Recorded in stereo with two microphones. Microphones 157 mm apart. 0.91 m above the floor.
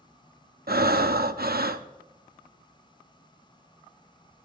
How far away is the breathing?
About 0.7 m.